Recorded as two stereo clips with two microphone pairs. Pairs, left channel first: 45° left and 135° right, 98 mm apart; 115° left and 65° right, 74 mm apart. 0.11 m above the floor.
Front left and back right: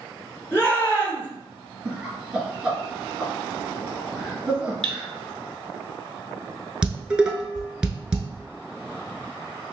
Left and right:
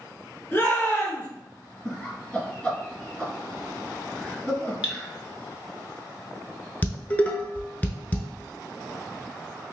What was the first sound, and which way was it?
A shout, 85° left.